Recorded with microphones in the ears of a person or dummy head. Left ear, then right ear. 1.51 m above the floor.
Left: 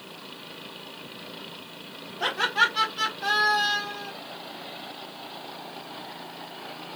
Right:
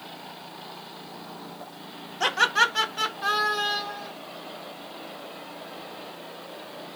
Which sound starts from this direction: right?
Laughter, at 2.2 s.